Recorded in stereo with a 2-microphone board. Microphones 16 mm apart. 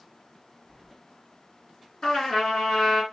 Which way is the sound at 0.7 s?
15° left (ahead or behind).